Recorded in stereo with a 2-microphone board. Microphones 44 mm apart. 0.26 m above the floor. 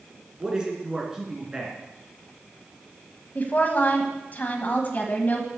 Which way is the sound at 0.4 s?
20° right (ahead or behind).